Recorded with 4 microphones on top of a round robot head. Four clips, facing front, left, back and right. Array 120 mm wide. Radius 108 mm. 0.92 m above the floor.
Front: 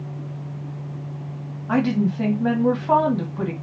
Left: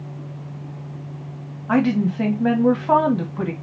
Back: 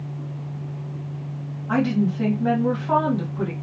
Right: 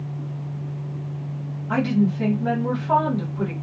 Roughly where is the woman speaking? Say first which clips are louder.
Left 2 dB, front 1 dB; left.